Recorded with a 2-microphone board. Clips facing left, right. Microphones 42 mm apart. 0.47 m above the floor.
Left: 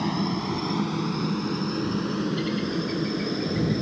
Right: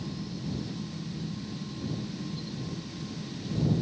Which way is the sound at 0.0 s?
65° left (ahead or behind).